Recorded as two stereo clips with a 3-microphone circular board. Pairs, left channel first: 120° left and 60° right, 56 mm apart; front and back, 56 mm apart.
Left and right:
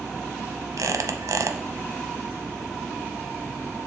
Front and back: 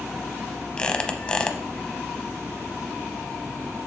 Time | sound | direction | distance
0.8 | a squeak | 70° right | 0.7 m